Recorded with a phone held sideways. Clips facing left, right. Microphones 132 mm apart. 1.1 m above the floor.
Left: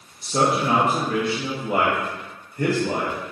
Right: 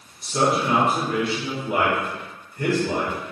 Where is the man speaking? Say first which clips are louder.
Left 1 dB; 45° left (ahead or behind), 0.9 m.